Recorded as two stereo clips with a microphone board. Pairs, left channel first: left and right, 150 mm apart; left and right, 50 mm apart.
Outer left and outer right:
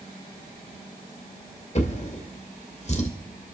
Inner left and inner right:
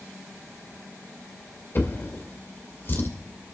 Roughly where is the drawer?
Left.